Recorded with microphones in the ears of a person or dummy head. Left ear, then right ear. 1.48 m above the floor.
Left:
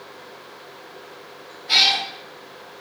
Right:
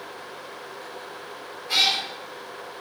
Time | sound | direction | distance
1.7 | a cat meowing | 40° left (ahead or behind) | 1.5 m